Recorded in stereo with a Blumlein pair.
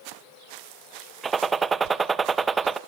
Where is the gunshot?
15° right, 0.8 m.